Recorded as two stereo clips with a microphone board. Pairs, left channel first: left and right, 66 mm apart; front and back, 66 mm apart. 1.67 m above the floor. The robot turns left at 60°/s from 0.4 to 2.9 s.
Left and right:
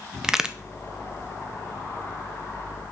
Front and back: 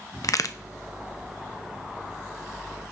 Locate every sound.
0.2 s a crack: 10° right, 0.7 m; by 0.6 s 20° right, 0.7 m